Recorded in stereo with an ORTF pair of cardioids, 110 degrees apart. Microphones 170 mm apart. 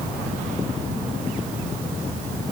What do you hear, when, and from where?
Only background noise.